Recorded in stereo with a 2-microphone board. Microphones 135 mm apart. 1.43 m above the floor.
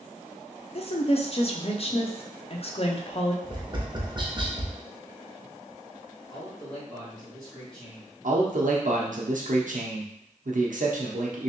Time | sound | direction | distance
0.8 | a woman speaking | 45° left (ahead or behind) | 0.6 m
3.4 | tapping | 35° right (ahead or behind) | 0.7 m
6.3 | a man speaking | 5° left (ahead or behind) | 1.9 m
8.2 | a man speaking | 75° right (ahead or behind) | 0.8 m